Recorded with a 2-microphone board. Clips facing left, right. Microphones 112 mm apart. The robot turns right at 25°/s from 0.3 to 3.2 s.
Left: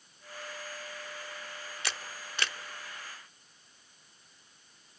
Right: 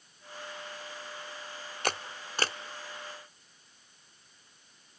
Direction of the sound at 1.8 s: 50° right (ahead or behind).